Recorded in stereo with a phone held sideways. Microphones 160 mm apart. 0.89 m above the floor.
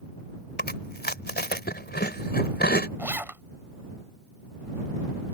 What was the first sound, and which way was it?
Chewing, 80° left.